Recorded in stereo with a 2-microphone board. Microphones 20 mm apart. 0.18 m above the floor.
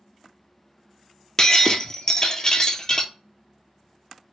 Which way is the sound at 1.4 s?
30° left (ahead or behind).